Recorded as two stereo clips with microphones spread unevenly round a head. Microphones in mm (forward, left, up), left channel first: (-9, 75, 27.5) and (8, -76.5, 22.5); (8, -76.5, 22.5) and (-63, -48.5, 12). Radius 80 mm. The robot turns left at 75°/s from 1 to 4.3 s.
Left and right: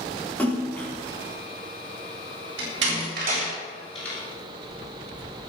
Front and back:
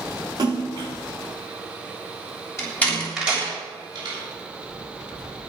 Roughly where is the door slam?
Right.